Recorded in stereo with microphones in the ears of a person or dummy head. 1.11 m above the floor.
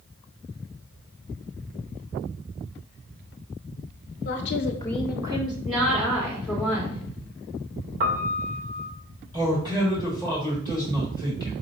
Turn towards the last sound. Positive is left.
turn(degrees=-25)  # may be behind; listen again after turning